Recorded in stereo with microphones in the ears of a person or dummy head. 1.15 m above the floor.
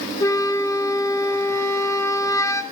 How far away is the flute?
About 2.5 m.